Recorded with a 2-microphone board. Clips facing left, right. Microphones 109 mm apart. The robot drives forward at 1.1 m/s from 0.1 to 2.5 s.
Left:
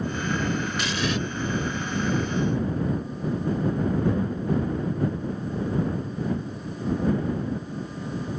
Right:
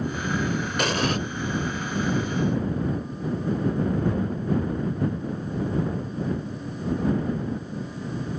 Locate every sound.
0.8 s an explosion: 55° right (ahead or behind); by 1.2 s 45° right (ahead or behind)